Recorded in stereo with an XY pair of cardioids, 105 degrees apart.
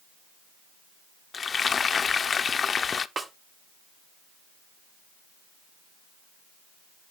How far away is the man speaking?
No man speaking in this recording.